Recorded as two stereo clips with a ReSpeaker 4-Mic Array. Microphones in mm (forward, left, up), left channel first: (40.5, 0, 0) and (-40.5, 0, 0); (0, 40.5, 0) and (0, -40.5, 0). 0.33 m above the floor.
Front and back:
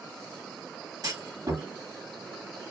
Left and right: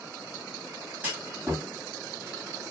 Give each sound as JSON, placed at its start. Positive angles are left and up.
{"t": 1.0, "sound": "a clunk", "azimuth_deg": -155, "distance_m": 3.0}